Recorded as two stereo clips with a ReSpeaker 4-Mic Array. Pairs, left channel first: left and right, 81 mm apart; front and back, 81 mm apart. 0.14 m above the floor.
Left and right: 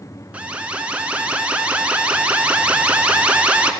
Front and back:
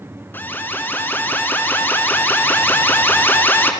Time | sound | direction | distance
0.3 | an alarm | 30° right | 2.5 m